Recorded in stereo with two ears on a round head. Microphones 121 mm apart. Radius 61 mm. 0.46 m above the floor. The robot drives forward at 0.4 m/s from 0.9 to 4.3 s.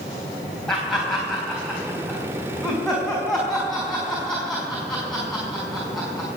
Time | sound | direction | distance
0.7 | laughter | 5° left (ahead or behind) | 3.5 m